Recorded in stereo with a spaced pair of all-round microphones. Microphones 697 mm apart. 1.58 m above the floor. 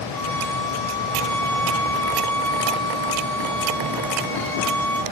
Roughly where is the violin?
Left.